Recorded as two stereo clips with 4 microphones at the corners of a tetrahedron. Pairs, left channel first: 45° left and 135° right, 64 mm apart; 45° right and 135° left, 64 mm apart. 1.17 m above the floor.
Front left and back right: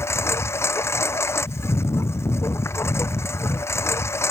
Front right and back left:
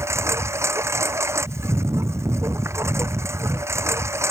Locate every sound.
0.0 s a lawn mower: 95° left